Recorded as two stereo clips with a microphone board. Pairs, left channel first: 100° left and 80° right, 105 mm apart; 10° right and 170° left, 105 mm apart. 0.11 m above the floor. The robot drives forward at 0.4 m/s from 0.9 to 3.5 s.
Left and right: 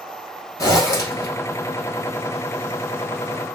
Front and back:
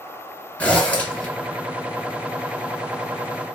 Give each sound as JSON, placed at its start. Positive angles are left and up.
{"t": 0.6, "sound": "a zipper", "azimuth_deg": 60, "distance_m": 2.0}